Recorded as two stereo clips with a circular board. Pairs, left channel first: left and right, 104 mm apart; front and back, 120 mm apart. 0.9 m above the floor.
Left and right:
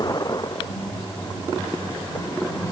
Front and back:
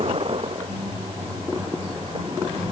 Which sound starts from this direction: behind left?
A vehicle, at 0.0 s.